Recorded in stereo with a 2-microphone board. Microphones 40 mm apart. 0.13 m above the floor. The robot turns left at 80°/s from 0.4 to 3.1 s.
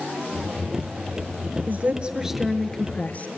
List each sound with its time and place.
1.7 s a woman speaking: 115° right, 1.8 m; by 3.3 s 130° left, 1.8 m